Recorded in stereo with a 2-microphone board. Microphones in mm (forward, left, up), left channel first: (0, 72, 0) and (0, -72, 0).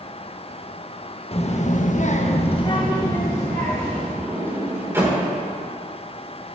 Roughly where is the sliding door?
Centre.